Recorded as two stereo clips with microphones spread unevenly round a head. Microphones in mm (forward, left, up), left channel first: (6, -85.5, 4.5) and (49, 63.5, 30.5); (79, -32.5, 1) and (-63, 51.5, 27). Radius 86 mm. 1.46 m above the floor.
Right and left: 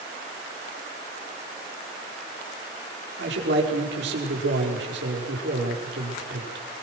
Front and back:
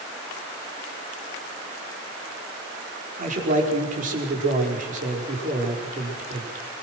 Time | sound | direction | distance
3.2 | a man speaking | 105° left | 5 m